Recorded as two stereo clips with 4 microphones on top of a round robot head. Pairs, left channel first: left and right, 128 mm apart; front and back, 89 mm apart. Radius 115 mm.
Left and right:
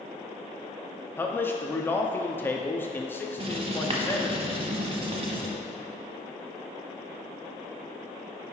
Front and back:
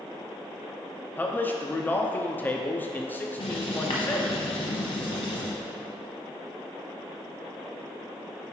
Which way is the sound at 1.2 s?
40° left.